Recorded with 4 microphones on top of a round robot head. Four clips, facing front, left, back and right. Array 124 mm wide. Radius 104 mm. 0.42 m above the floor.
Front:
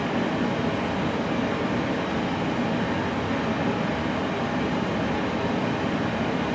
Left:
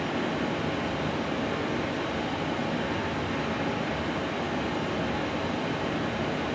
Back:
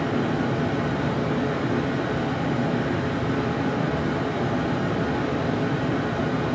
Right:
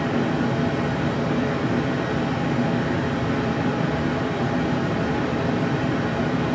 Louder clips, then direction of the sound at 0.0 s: Right 7 dB, back 1 dB; 130° right.